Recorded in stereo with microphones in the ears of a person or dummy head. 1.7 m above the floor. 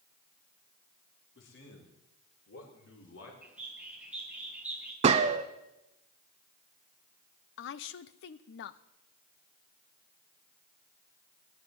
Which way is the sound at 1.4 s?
75° left (ahead or behind).